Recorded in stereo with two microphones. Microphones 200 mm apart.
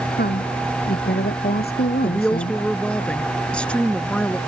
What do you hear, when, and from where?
0.1 s a woman speaking: 55° left (ahead or behind)
2.0 s a woman speaking: 5° left (ahead or behind)